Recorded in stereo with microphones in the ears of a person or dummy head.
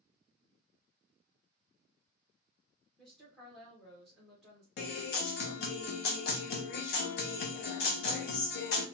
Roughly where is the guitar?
Left.